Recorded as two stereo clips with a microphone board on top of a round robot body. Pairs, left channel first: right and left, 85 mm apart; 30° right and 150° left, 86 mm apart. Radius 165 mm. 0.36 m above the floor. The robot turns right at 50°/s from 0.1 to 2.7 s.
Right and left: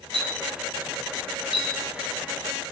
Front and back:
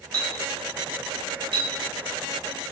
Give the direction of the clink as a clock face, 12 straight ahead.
9 o'clock.